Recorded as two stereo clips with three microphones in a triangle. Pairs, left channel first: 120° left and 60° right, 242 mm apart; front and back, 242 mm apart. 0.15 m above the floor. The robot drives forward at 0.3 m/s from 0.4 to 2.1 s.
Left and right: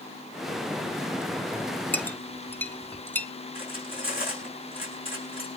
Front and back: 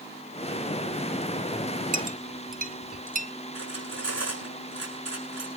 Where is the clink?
160° right, 1.1 m; by 3.3 s 165° right, 1.2 m.